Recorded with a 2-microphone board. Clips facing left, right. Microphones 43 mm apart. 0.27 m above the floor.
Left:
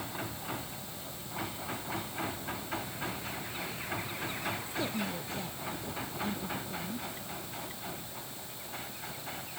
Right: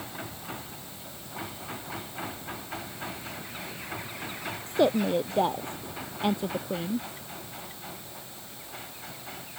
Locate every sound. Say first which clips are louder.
4.7 s a woman speaking: right 11 dB; 65° right (ahead or behind); by 7.1 s 85° right